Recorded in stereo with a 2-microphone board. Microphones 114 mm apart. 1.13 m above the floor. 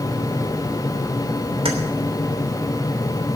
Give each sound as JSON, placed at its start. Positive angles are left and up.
{"t": 1.6, "sound": "keys jangling", "side_deg": -55, "distance_m": 3.0}